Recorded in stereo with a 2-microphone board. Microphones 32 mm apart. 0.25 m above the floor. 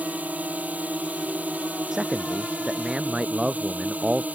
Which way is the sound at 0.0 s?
55° right (ahead or behind).